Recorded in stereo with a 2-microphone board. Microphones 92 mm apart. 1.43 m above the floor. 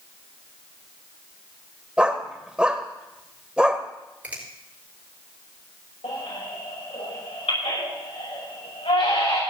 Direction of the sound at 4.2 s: 15° right (ahead or behind).